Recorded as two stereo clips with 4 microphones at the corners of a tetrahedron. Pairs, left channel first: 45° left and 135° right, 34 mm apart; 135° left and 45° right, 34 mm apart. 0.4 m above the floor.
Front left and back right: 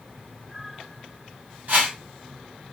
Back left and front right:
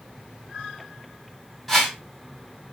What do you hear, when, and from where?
1.7 s a whoosh: 130° right, 1.9 m